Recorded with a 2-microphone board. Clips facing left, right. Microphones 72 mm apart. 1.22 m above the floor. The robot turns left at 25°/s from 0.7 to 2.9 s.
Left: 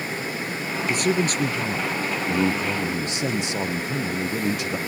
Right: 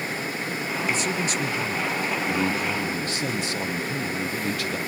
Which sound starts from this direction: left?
A man speaking, at 0.9 s.